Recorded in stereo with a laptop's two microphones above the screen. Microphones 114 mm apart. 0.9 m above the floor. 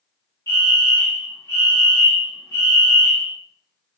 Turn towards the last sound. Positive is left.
turn(degrees=25)  # may be behind; listen again after turning